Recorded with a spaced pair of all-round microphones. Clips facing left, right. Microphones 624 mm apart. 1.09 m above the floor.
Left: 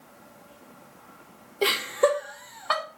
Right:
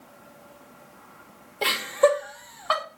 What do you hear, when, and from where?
1.6 s laughter: 25° right (ahead or behind), 1.0 m; by 2.8 s 10° right (ahead or behind), 1.6 m